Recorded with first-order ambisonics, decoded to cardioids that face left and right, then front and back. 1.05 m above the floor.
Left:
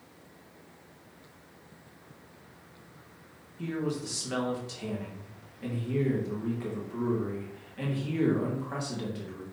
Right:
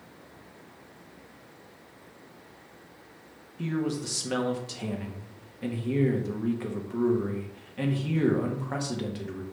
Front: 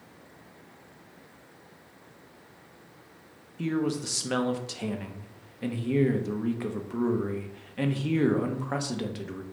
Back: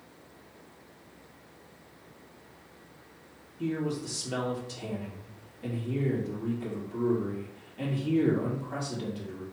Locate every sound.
3.6 s a man speaking: 20° right, 0.8 m